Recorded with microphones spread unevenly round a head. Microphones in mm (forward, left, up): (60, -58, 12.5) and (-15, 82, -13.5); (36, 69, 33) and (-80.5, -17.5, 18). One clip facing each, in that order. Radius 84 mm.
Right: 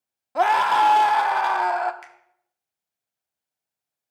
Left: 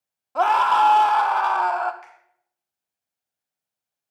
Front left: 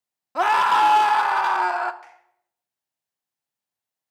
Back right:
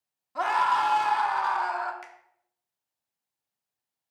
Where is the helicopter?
No helicopter in this recording.